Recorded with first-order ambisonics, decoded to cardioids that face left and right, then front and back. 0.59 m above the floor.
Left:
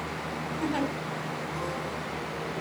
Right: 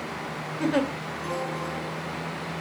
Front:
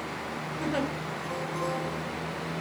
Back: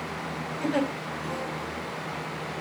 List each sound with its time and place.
0.6 s a giggle: 95° right, 1.4 m